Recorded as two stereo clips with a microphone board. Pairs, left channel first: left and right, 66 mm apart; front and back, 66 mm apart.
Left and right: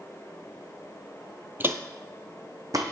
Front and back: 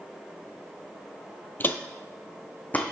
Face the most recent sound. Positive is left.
turn(degrees=-65)